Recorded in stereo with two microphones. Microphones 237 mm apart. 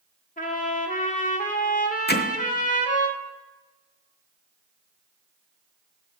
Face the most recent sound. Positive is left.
turn(degrees=45)  # may be behind; listen again after turning